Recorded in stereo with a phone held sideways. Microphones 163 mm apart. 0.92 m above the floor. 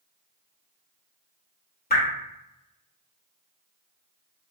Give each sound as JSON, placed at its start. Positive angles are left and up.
{"t": 1.9, "sound": "dripping", "side_deg": 70, "distance_m": 1.1}